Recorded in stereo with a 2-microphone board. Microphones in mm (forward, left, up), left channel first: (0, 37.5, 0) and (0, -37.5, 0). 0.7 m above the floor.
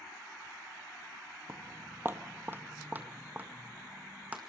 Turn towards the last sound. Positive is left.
turn(degrees=-20)  # may be behind; listen again after turning